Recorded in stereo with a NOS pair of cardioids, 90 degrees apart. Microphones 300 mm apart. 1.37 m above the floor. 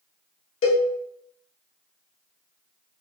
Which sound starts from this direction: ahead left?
A cowbell, at 0.6 s.